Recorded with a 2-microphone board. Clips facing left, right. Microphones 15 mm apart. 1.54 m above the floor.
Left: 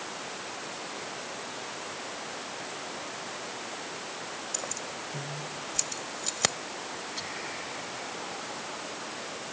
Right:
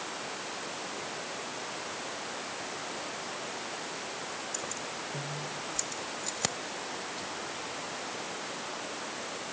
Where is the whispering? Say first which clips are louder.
Left 2 dB; 40° left (ahead or behind).